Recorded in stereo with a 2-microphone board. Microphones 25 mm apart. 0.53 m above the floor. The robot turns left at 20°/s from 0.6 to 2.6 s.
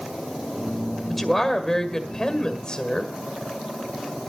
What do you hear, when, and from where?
1.1 s a woman speaking: straight behind, 1.8 m; by 3.1 s 145° left, 1.8 m